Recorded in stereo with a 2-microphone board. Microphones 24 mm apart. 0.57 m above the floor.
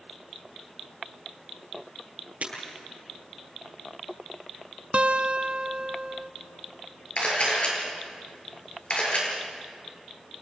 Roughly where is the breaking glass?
Right.